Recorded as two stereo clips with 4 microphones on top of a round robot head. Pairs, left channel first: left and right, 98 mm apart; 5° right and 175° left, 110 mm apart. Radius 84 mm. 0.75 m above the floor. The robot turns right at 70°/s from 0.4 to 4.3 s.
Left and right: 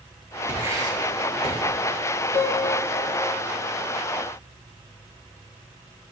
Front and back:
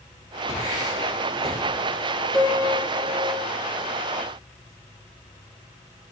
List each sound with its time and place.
0.5 s writing: 160° right, 1.6 m; by 1.6 s 85° right, 1.6 m
2.3 s a piano: 55° left, 3 m; by 3.5 s 135° left, 3 m